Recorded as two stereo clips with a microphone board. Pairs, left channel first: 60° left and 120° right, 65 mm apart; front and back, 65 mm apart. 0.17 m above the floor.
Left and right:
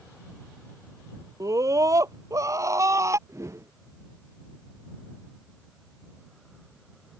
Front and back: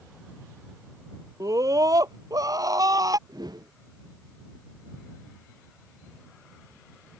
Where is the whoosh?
165° right.